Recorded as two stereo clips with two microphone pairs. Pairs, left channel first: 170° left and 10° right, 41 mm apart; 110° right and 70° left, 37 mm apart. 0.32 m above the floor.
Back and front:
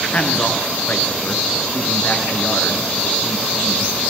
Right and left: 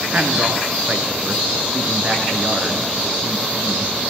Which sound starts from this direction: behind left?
A man speaking, at 0.1 s.